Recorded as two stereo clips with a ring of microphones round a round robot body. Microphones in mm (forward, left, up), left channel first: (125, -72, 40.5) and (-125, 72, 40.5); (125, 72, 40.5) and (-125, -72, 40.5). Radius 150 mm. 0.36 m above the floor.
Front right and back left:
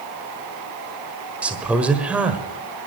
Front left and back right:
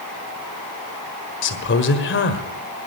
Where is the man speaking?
65° left, 1.6 m.